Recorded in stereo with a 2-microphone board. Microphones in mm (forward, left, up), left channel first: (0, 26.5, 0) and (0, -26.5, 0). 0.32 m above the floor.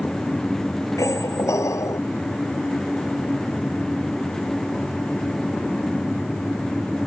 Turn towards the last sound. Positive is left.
turn(degrees=75)  # may be behind; listen again after turning